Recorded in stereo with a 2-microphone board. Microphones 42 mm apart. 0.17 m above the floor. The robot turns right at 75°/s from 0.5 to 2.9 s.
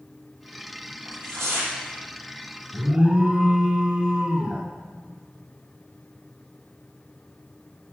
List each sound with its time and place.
1.1 s tearing paper: 115° right, 6 m; by 1.7 s 65° right, 6 m
2.7 s an alarm: 25° right (ahead or behind), 1.6 m; by 4.7 s 20° right (ahead or behind), 1.6 m